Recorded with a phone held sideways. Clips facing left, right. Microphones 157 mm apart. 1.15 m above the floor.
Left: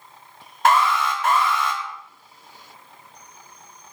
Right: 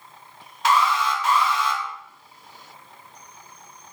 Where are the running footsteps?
I don't hear running footsteps.